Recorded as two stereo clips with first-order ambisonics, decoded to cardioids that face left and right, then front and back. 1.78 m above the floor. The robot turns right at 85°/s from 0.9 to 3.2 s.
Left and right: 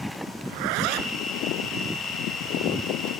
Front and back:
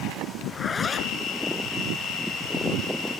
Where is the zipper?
75° right; by 1.2 s 45° right.